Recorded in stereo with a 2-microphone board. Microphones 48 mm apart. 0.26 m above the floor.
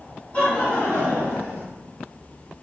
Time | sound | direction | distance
0.3 | laughter | 30° left (ahead or behind) | 1.4 m